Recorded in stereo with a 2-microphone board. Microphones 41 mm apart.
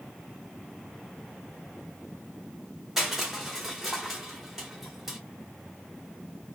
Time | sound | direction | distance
3.0 | crushing | 5° right (ahead or behind) | 1.2 m